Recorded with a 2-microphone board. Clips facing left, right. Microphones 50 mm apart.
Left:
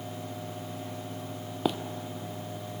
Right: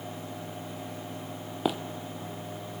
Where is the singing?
No singing in this recording.